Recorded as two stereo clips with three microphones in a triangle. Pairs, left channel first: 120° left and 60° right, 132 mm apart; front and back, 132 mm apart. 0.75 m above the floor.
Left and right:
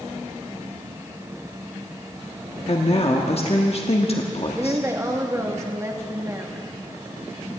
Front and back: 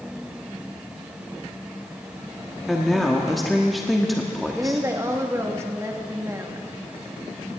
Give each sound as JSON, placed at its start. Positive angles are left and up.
{"t": 2.7, "sound": "a woman speaking", "azimuth_deg": 90, "distance_m": 1.2}
{"t": 4.5, "sound": "a woman speaking", "azimuth_deg": -120, "distance_m": 1.3}